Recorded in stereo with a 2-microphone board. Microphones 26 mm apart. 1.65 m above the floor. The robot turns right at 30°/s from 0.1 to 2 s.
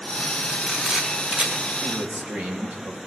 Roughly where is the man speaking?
Right.